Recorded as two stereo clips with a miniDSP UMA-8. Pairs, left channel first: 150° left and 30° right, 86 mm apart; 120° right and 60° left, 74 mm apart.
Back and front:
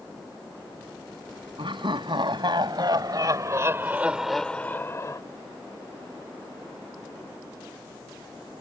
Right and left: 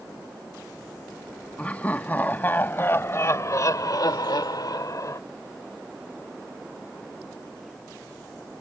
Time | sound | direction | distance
1.6 | laughter | 50° right | ?